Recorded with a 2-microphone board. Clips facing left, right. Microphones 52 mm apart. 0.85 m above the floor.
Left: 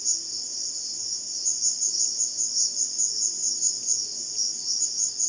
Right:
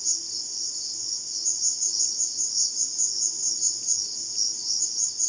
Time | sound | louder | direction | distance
0.0 | an insect | even | 30° left (ahead or behind) | 1.1 m